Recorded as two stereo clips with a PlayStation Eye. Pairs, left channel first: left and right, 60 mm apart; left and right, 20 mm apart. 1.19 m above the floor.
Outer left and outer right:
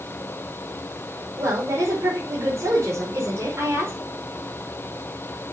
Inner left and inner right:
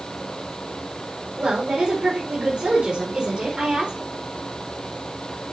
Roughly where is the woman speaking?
Right.